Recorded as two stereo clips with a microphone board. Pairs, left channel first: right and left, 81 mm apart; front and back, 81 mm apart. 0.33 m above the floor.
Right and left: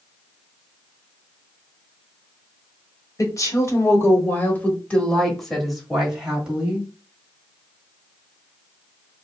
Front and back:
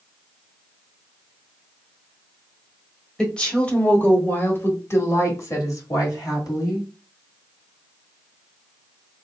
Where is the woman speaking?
75° right, 1.5 m; by 6.9 s 20° left, 1.8 m.